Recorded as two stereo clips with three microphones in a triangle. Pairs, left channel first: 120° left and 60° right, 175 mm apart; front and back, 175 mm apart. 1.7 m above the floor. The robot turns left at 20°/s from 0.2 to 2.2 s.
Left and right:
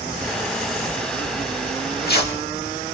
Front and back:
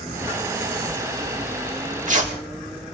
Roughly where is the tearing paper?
Behind left.